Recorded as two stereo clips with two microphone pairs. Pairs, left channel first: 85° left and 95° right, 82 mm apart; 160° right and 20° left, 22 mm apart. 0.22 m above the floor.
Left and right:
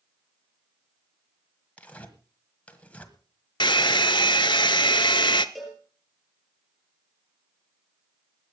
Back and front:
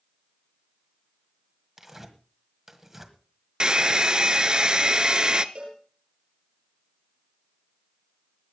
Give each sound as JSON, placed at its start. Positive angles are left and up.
{"t": 1.8, "sound": "tearing paper", "azimuth_deg": 55, "distance_m": 1.4}
{"t": 3.6, "sound": "a hair dryer", "azimuth_deg": 65, "distance_m": 0.6}
{"t": 5.5, "sound": "a cowbell", "azimuth_deg": -5, "distance_m": 4.0}